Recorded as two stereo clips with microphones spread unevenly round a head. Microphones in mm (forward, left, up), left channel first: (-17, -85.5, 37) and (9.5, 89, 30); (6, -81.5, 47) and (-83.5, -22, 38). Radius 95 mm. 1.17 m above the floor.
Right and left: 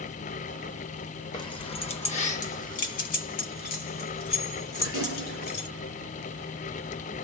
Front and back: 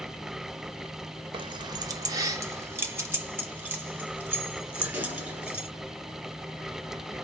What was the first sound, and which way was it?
Keys jangling, 165° right.